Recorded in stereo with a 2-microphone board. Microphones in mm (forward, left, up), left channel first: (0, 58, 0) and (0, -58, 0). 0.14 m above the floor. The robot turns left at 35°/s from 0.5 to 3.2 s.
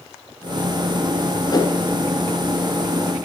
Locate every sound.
1.5 s a whoosh: 35° left (ahead or behind), 0.7 m; by 1.8 s 30° left (ahead or behind), 0.7 m